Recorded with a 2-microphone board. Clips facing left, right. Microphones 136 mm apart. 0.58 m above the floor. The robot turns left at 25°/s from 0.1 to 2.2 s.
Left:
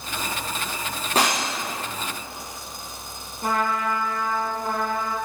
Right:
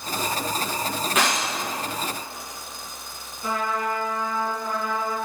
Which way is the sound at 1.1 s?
35° left (ahead or behind).